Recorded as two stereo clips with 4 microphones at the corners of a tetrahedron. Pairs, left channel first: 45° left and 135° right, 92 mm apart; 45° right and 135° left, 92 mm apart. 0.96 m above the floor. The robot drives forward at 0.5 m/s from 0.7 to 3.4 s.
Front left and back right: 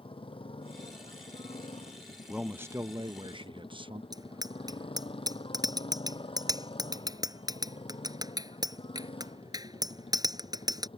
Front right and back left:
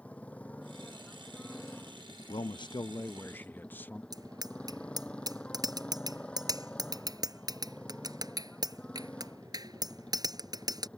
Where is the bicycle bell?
Straight behind.